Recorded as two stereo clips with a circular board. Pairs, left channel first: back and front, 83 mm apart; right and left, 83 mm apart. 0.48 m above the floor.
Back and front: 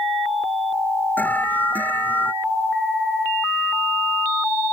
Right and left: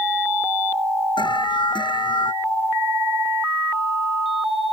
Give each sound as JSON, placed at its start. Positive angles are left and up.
{"t": 1.2, "sound": "an alarm", "azimuth_deg": -110}